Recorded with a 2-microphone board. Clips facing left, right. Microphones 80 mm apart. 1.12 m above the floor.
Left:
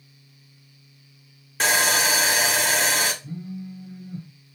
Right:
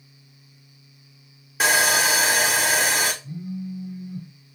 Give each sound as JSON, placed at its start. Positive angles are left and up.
{"t": 1.6, "sound": "sawing", "side_deg": -5, "distance_m": 0.6}
{"t": 3.2, "sound": "a phone buzzing", "side_deg": 40, "distance_m": 0.9}